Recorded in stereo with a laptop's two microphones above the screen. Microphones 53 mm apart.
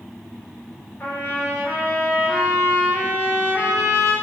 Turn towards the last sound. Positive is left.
turn(degrees=30)  # may be behind; listen again after turning